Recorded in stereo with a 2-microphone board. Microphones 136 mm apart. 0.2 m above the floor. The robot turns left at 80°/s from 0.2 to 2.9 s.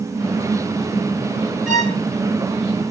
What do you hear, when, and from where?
1.7 s a violin: 10° right (ahead or behind), 1.8 m; by 2.0 s 15° left (ahead or behind), 1.8 m